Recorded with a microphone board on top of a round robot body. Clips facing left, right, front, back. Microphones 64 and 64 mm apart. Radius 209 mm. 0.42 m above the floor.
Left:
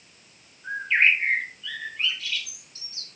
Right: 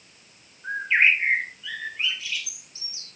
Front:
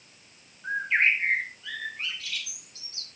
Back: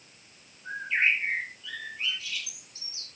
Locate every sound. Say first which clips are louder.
0.6 s a bird: right 1 dB, front 3 dB; 15° right, 2.5 m